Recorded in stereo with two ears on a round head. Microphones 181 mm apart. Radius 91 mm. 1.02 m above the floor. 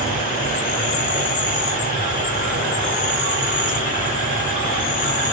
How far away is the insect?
About 2 m.